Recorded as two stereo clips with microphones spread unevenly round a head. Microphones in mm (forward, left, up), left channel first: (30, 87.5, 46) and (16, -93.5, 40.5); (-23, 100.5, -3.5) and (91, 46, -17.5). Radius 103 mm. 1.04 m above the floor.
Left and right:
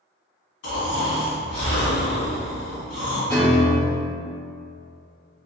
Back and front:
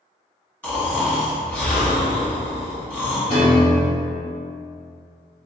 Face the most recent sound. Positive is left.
turn(degrees=125)